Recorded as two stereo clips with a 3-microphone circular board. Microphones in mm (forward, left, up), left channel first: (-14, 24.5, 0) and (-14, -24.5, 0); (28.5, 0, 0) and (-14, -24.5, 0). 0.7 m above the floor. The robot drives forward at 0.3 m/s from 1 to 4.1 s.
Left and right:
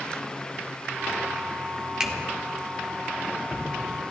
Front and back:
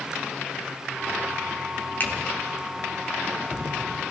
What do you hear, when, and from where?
2.0 s a finger snap: 15° right, 1.6 m; by 2.1 s 20° right, 1.6 m